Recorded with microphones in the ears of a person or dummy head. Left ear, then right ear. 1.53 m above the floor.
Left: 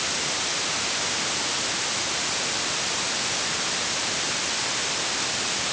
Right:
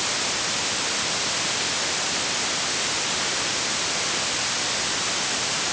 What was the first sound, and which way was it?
Only background noise.